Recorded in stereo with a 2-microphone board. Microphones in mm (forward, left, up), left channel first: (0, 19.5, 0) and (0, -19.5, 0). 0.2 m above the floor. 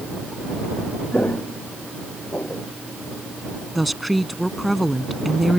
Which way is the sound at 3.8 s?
Centre (ahead or behind).